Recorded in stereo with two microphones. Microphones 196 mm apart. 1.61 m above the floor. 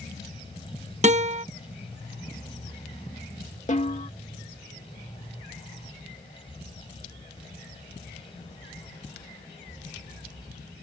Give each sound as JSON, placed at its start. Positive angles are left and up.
{"t": 1.0, "sound": "a guitar", "side_deg": -40}
{"t": 3.7, "sound": "a snare drum", "side_deg": 40}